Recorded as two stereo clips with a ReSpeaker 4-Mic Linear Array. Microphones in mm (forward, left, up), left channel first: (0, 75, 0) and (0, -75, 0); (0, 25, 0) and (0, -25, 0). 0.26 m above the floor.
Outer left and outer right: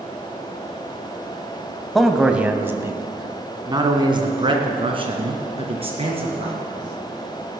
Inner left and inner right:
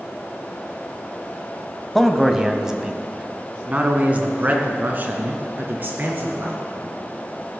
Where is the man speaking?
Centre (ahead or behind), 1.1 m; by 6.6 s 40° right (ahead or behind), 3.5 m.